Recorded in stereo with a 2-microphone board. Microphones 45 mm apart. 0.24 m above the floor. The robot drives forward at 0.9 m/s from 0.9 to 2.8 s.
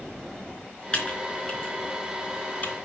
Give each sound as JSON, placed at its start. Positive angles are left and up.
{"t": 0.9, "sound": "typing on a keyboard", "side_deg": 25, "distance_m": 3.5}